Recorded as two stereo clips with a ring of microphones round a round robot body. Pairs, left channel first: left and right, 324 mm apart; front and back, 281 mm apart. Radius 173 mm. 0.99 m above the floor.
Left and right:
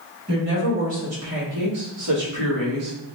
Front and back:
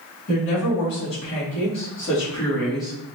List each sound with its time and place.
0.3 s a woman speaking: 35° right, 1.9 m; by 2.9 s 95° right, 1.9 m